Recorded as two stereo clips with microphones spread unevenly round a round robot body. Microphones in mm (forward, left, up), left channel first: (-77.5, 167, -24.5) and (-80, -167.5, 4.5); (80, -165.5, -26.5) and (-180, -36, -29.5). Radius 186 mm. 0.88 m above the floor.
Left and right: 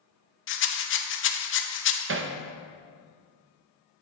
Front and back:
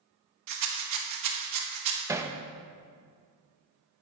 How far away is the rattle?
About 1.1 m.